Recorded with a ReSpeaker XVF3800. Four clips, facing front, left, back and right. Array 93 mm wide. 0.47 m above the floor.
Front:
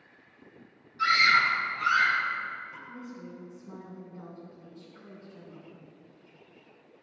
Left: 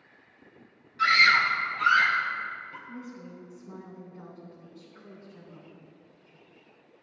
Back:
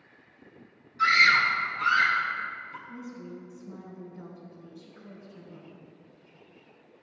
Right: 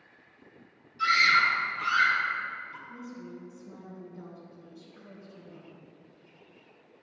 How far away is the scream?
About 3.5 m.